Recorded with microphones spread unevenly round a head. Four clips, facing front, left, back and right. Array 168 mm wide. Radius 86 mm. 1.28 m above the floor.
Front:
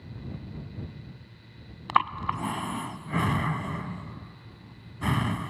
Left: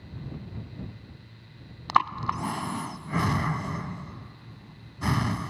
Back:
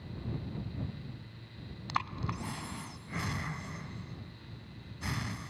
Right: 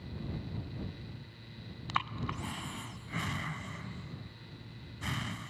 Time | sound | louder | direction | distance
1.9 | breathing | left 12 dB, front 11 dB | 35° left | ?